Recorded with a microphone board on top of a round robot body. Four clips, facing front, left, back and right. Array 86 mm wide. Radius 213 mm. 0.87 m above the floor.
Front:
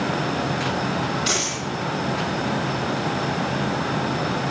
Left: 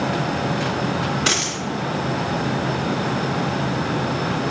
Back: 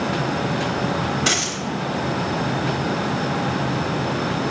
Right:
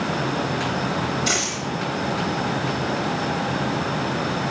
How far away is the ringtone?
No ringtone in this recording.